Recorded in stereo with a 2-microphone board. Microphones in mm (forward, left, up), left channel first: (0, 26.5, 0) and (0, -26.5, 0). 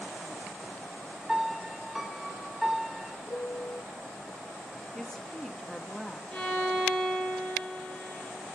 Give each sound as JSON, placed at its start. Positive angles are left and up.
{"t": 1.3, "sound": "a piano", "side_deg": -5, "distance_m": 1.2}
{"t": 3.3, "sound": "a piano", "side_deg": 60, "distance_m": 0.8}
{"t": 5.0, "sound": "a woman speaking", "side_deg": 10, "distance_m": 0.8}
{"t": 6.3, "sound": "a violin", "side_deg": 15, "distance_m": 6.5}